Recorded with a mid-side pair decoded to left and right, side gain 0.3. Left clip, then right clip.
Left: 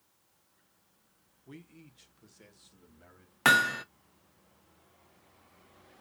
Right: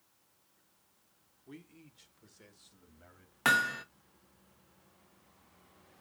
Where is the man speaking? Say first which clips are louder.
Left 1 dB; 25° left, 1.7 m; by 3.4 s 10° left, 2.5 m.